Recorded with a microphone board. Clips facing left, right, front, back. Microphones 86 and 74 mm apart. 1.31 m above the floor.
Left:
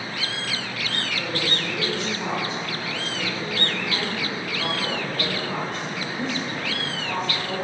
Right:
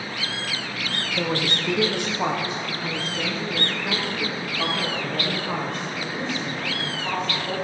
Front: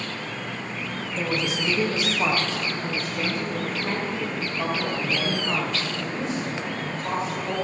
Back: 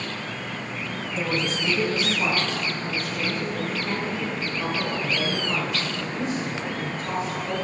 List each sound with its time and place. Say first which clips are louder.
1.2 s a woman speaking: right 5 dB, even; 95° right, 1.1 m; by 7.5 s 30° right, 5 m